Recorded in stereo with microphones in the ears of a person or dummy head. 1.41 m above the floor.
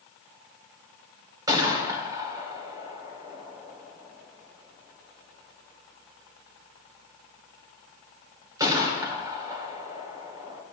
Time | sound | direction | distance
1.5 | a gunshot | 20° right (ahead or behind) | 2.5 m